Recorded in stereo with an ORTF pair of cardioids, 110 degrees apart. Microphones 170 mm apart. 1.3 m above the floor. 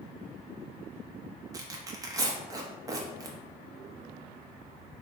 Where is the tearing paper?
20° right, 0.8 m.